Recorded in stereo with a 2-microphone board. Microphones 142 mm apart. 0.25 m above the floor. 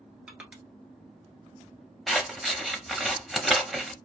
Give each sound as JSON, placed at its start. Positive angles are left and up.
{"t": 0.3, "sound": "crushing", "side_deg": -5, "distance_m": 1.0}
{"t": 2.1, "sound": "scissors", "side_deg": 0, "distance_m": 0.6}